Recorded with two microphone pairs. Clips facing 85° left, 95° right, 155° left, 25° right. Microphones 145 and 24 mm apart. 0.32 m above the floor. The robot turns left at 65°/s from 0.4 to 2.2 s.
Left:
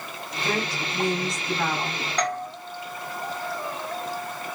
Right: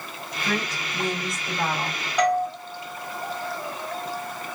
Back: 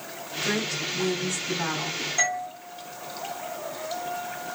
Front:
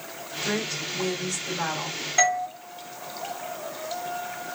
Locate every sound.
0.4 s a woman speaking: 55° left, 3 m; by 2.0 s 50° right, 3 m
2.2 s a doorbell: 15° right, 1.8 m; by 2.5 s 20° right, 1.8 m